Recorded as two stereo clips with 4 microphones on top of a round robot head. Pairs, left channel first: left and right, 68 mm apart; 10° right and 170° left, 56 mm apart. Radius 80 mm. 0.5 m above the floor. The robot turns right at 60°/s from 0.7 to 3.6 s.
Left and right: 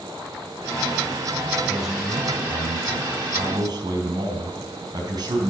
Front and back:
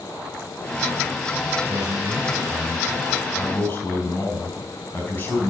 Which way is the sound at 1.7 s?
175° right.